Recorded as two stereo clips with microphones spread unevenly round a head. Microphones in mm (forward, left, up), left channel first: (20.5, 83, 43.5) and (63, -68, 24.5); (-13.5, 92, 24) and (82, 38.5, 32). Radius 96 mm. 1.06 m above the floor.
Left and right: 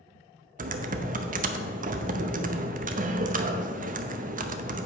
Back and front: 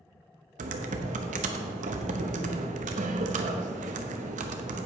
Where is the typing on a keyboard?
35° right, 0.7 m.